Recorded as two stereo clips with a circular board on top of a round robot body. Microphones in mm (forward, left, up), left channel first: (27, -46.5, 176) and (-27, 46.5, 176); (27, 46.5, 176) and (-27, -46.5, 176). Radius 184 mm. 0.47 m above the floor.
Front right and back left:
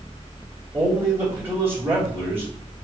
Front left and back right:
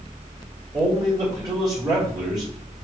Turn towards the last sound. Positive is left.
turn(degrees=-170)